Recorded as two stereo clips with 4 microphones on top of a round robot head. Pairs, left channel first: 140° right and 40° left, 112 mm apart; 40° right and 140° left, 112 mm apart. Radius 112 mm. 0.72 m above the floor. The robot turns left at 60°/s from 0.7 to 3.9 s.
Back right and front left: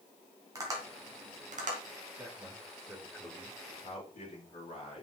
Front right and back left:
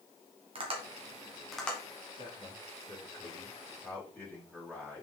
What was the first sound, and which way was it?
Tapping, 100° left.